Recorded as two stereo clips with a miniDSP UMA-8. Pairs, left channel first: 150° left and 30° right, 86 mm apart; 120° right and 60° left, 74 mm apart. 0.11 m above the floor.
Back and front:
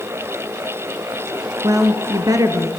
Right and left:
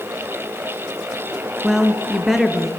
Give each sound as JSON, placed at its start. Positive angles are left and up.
{"t": 1.6, "sound": "a woman speaking", "azimuth_deg": -25, "distance_m": 1.8}